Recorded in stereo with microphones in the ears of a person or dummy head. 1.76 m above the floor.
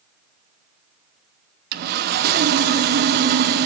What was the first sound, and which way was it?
Sawing, 50° right (ahead or behind).